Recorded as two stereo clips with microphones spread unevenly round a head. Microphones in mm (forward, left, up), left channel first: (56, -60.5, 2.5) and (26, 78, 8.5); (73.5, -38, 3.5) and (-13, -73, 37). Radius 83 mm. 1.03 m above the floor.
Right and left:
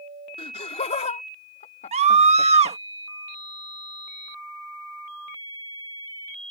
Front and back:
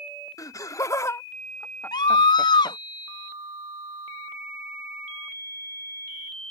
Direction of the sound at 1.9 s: 60° left.